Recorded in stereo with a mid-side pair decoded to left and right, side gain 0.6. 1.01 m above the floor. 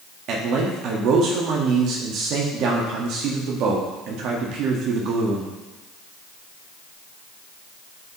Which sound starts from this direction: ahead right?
A man speaking, at 0.3 s.